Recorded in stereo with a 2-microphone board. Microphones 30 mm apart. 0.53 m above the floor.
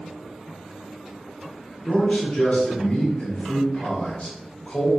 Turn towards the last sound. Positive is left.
turn(degrees=55)  # may be behind; listen again after turning